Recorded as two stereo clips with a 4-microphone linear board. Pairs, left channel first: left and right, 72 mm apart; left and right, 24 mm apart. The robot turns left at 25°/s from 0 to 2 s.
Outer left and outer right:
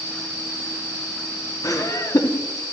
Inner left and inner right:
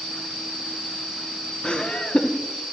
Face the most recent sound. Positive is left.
turn(degrees=50)  # may be behind; listen again after turning